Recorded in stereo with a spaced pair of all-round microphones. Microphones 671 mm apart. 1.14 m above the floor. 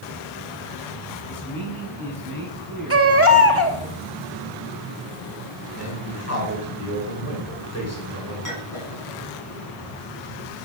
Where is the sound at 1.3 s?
30° left (ahead or behind), 9.5 m.